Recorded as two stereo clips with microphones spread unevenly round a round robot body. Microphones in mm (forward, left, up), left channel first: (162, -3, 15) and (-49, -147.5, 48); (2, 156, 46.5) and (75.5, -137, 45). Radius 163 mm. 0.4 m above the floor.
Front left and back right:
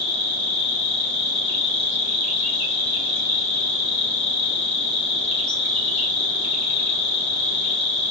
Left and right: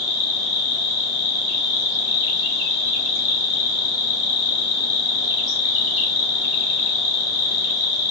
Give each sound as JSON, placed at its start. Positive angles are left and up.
{"t": 0.0, "sound": "an insect", "azimuth_deg": 130, "distance_m": 1.2}